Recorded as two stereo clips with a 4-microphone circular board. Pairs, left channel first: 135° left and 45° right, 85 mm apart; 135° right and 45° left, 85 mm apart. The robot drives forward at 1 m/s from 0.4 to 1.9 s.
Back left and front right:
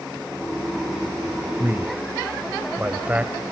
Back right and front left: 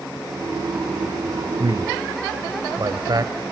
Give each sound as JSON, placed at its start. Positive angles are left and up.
{"t": 1.6, "sound": "a man speaking", "azimuth_deg": 20, "distance_m": 1.9}